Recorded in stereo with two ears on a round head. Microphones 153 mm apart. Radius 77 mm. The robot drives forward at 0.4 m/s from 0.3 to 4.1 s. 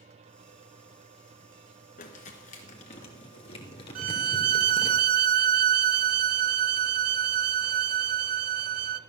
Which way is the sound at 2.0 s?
50° left (ahead or behind).